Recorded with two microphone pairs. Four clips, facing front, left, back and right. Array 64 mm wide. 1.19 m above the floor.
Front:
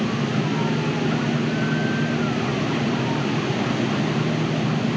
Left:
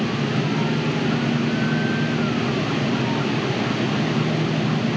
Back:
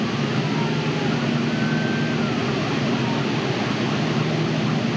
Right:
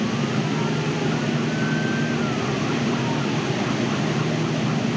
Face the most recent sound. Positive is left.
No sound to turn to.